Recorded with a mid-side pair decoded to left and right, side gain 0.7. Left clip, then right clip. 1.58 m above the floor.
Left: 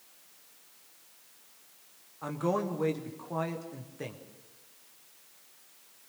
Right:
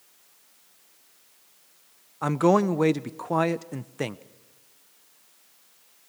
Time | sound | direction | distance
2.2 | a man speaking | 50° right | 0.8 m